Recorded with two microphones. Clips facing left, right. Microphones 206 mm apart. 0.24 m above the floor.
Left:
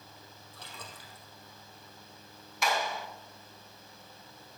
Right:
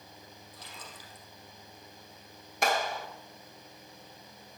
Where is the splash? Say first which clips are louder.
Left 2 dB; 65° left (ahead or behind), 3.5 m.